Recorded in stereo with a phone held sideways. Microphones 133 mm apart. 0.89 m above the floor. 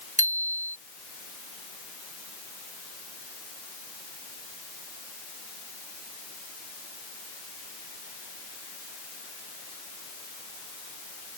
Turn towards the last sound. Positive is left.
turn(degrees=-75)  # may be behind; listen again after turning